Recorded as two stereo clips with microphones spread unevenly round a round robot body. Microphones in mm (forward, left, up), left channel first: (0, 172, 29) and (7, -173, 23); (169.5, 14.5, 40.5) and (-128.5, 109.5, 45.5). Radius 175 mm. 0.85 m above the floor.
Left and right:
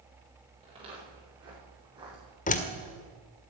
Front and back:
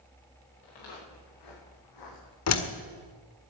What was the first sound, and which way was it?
Footsteps, 15° right.